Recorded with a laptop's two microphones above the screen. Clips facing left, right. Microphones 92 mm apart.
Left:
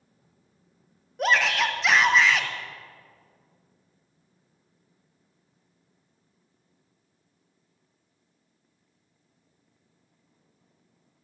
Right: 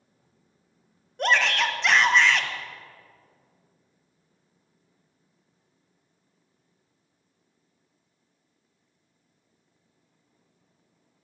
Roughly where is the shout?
Centre.